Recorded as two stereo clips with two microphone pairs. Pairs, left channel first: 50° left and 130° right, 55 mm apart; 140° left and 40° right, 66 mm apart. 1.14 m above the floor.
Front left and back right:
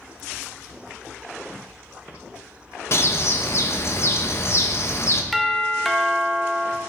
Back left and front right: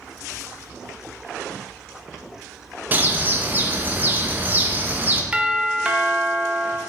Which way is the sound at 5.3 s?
30° right.